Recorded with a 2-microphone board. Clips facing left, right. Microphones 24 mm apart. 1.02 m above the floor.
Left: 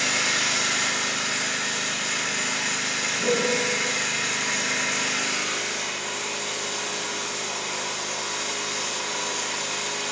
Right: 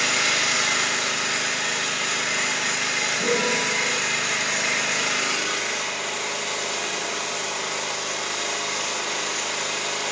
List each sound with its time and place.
0.0 s an engine running: 60° right (ahead or behind), 3 m
3.2 s a piano: 25° right (ahead or behind), 4 m